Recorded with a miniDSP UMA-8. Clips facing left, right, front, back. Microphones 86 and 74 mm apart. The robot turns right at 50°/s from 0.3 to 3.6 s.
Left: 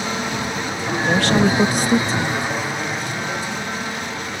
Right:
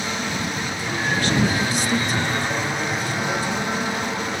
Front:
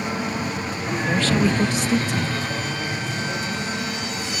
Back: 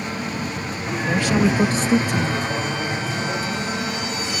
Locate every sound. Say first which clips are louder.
0.0 s an aircraft: left 2 dB, front 1 dB; 55° left; by 4.4 s 140° right
1.1 s a woman speaking: left 5 dB, back 2 dB; 95° left; by 2.5 s 165° left